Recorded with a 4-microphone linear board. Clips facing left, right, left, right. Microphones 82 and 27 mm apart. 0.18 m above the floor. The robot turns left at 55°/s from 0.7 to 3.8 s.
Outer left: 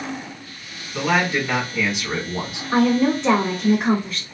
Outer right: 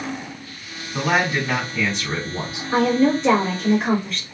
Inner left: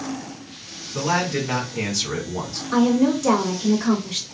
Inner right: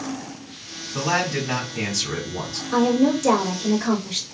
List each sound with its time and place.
0.9 s a man speaking: 15° right (ahead or behind), 1.7 m; by 2.6 s 25° left (ahead or behind), 1.7 m
2.7 s a woman speaking: 25° left (ahead or behind), 1.8 m; by 4.2 s 5° left (ahead or behind), 1.8 m